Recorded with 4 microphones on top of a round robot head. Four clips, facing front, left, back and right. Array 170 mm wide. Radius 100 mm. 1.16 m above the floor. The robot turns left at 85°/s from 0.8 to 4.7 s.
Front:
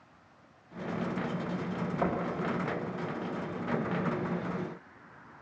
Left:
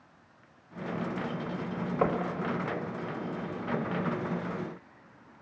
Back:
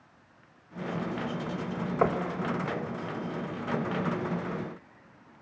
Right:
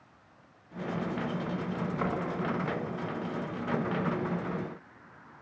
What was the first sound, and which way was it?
Knocking, 145° left.